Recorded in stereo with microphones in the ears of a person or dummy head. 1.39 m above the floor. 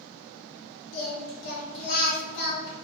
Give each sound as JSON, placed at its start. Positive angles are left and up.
{"t": 0.9, "sound": "singing", "side_deg": 65, "distance_m": 1.2}